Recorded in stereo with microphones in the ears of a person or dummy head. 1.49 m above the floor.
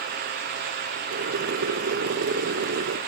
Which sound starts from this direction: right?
Boiling, at 1.1 s.